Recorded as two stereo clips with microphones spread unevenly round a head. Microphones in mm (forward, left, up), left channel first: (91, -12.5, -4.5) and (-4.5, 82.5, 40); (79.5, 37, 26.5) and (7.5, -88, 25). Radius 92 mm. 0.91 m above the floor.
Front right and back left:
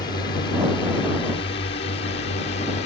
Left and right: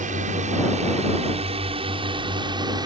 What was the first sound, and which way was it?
A drone, 95° right.